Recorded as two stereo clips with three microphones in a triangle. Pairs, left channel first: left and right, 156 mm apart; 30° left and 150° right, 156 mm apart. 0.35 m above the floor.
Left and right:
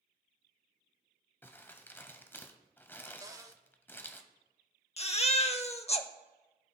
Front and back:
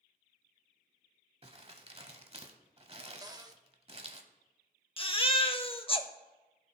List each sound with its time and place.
1.4 s crumpling: 165° left, 0.8 m
3.2 s a cupboard door: 130° right, 0.6 m
5.0 s a baby crying: 65° left, 0.6 m